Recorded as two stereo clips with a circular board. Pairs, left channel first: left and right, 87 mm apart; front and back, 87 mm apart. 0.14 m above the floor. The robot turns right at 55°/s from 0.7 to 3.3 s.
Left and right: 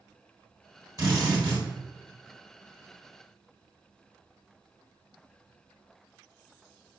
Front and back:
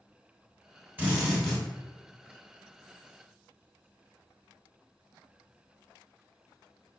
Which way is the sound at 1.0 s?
115° right.